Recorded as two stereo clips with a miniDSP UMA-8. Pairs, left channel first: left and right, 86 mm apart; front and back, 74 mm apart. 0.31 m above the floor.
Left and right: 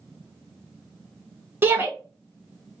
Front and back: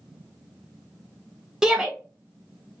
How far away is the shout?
About 0.9 m.